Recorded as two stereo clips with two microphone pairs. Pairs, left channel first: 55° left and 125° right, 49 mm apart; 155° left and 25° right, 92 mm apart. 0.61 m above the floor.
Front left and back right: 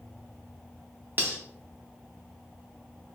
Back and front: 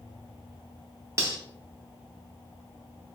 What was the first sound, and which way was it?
Cutlery clinking, 80° right.